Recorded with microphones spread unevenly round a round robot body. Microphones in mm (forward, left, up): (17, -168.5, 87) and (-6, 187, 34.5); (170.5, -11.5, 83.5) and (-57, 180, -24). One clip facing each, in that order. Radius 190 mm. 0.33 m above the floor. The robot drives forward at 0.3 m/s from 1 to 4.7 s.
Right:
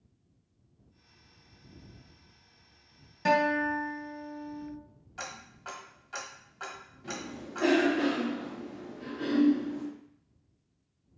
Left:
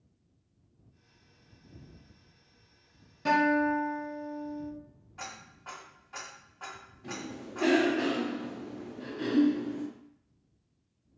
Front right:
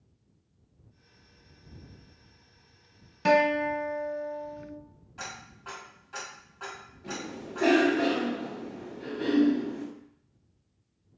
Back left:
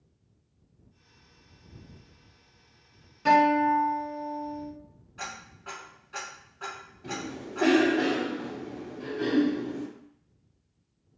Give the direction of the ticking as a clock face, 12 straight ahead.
4 o'clock.